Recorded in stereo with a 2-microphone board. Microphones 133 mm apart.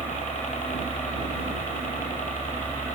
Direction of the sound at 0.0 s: 65° left (ahead or behind).